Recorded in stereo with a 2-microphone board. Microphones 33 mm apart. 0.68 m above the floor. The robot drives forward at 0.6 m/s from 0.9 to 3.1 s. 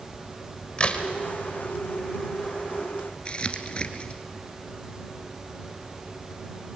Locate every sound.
0.8 s a crack: 35° left (ahead or behind), 2 m
3.2 s crumpling: 30° left (ahead or behind), 1.6 m